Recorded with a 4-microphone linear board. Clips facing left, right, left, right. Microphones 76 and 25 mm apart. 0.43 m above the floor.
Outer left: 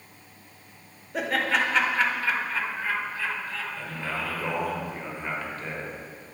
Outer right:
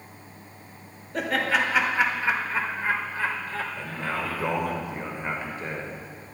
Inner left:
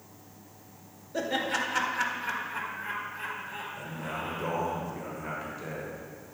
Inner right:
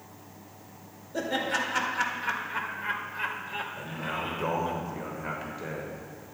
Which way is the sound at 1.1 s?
5° left (ahead or behind).